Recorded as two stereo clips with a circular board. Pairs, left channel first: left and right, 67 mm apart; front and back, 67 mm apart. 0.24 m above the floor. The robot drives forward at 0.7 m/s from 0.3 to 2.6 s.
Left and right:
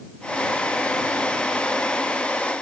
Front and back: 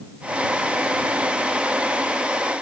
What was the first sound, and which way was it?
Only background noise.